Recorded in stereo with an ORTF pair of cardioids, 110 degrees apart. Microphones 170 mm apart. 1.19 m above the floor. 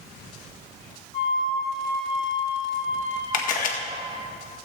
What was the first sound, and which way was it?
A flute, 35° left.